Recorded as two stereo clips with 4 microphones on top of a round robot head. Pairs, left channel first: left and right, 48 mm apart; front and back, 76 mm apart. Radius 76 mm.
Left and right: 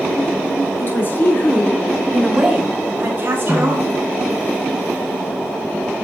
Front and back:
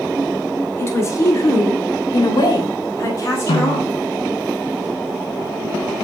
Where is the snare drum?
15° right, 2 m.